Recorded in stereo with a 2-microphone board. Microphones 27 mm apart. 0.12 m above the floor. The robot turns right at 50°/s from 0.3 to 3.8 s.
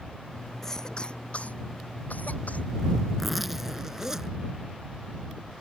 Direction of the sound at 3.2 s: 175° left.